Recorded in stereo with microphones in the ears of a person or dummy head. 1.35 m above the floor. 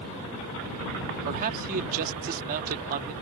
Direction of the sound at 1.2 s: 45° right (ahead or behind).